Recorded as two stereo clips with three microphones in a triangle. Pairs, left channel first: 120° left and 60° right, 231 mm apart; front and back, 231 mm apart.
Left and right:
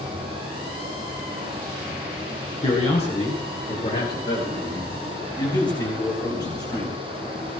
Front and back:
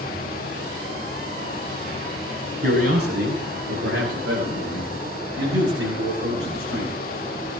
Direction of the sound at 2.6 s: Straight behind.